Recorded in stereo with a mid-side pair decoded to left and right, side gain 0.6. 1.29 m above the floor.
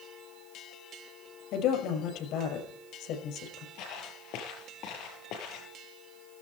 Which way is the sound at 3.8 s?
70° left.